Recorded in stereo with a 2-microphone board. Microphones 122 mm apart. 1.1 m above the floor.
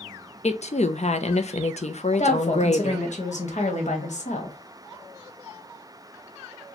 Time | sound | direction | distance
0.4 | a woman speaking | 65° left (ahead or behind) | 0.5 m
2.2 | a woman speaking | 80° left | 1.2 m